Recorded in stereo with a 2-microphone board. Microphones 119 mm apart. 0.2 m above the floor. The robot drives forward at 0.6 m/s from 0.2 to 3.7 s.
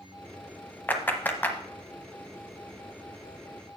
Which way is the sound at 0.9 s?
15° left (ahead or behind).